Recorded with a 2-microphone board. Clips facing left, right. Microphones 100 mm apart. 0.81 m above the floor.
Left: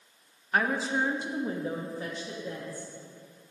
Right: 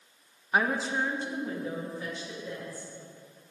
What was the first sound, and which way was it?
A woman speaking, 15° right (ahead or behind).